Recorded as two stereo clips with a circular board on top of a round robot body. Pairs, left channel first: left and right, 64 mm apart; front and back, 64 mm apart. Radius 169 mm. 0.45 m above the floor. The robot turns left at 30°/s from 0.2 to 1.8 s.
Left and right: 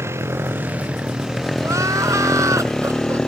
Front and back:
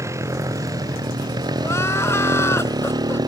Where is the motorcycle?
140° right; by 3.3 s 175° left.